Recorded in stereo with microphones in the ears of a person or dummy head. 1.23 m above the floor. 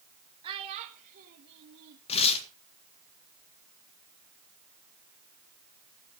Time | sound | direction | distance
0.4 | a child speaking | 25° right (ahead or behind) | 1.1 m
2.1 | tearing paper | 35° left (ahead or behind) | 1.8 m